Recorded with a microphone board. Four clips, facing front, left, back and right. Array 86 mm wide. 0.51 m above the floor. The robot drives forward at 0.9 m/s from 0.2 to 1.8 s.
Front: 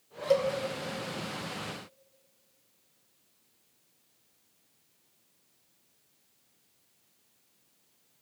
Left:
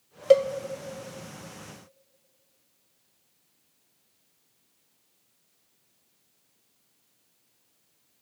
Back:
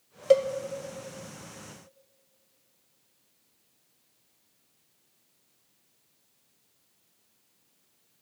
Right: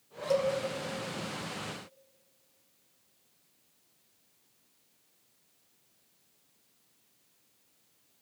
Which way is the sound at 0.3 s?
115° left.